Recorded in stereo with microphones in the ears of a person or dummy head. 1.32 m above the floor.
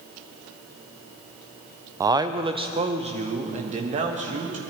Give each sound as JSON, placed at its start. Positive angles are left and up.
{"t": 2.0, "sound": "a man speaking", "side_deg": -15, "distance_m": 0.5}